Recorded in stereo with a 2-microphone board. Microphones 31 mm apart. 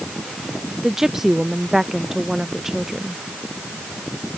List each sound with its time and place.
0.8 s a woman speaking: 10° right (ahead or behind)